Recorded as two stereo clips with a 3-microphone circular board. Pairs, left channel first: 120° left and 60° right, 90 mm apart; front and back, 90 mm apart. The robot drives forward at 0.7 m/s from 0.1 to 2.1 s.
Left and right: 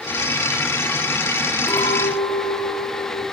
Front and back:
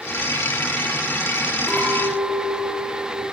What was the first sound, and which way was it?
A clink, 100° left.